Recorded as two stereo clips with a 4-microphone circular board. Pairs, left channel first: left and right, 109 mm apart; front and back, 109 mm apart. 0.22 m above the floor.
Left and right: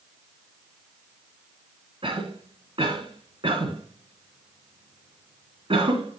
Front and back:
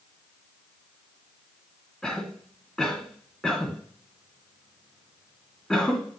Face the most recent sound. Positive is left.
turn(degrees=-80)